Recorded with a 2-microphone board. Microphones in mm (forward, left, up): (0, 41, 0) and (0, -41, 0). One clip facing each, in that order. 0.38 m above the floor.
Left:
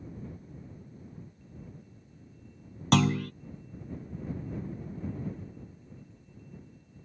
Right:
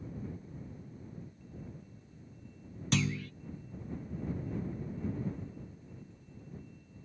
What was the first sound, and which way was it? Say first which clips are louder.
A clunk: left 8 dB; 80° left.